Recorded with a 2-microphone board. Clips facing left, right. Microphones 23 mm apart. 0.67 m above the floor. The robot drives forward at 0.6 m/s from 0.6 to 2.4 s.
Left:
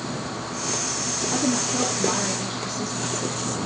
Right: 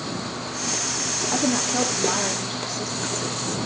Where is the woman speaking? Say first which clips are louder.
Right 1 dB; 25° right (ahead or behind), 0.6 m; by 3.4 s 15° right (ahead or behind), 1.0 m.